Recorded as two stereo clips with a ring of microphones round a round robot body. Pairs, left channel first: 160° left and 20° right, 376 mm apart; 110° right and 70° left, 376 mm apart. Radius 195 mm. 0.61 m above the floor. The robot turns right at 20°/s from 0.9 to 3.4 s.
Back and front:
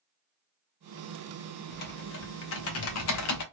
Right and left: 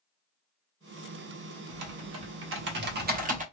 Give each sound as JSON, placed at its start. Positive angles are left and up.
{"t": 1.7, "sound": "typing on a keyboard", "azimuth_deg": 100, "distance_m": 0.8}